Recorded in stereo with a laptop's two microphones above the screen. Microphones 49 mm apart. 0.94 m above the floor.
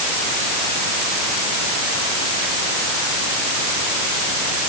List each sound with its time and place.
Only background noise.